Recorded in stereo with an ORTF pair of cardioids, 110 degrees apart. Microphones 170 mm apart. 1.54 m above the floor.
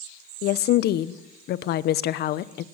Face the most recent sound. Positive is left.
turn(degrees=70)